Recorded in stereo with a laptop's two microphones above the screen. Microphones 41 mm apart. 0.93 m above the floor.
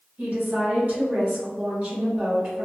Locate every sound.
0.2 s a woman speaking: 45° right (ahead or behind), 1.5 m